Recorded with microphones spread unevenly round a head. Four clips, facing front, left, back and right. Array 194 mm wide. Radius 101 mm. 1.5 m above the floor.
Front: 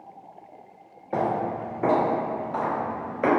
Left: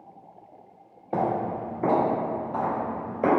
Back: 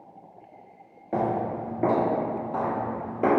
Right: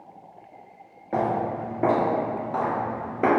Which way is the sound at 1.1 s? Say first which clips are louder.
Right 1 dB, front 1 dB; 130° right.